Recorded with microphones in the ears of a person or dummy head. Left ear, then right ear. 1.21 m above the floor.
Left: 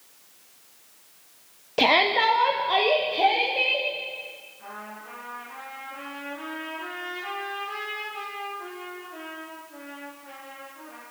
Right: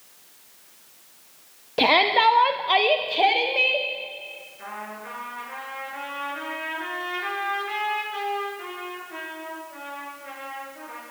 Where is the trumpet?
70° right (ahead or behind), 8 m.